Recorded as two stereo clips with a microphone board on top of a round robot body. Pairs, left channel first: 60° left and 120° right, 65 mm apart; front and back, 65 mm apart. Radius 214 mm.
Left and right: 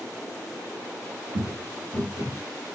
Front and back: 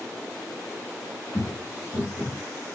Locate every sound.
1.3 s footsteps: 65° right, 0.8 m; by 2.4 s 30° left, 0.9 m